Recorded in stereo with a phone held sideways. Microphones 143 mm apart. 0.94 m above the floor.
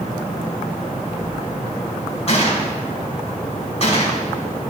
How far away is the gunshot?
About 1.9 m.